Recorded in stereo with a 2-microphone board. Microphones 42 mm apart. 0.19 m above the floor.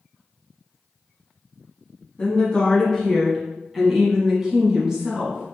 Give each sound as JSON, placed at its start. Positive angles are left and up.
{"t": 2.2, "sound": "a woman speaking", "side_deg": 30, "distance_m": 1.4}